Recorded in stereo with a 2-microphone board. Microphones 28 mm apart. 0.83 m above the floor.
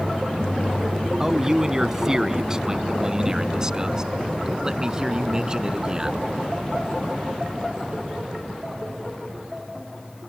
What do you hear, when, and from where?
1.2 s a man speaking: 20° right (ahead or behind); by 6.2 s 25° right (ahead or behind)